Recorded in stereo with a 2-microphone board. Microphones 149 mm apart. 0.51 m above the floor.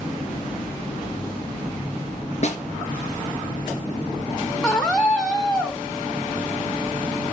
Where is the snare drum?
50° left (ahead or behind), 3 m.